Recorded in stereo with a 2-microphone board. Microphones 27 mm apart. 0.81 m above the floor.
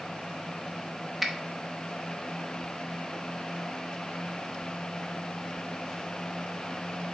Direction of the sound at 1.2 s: 5° right (ahead or behind).